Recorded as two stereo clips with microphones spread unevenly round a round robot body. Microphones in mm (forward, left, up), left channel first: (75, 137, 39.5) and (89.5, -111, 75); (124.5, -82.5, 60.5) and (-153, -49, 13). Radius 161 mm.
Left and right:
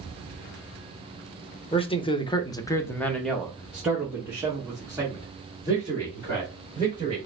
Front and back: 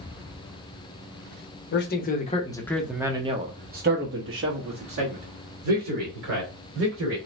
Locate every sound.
1.7 s a man speaking: 40° left, 0.9 m; by 7.2 s 165° right, 2.5 m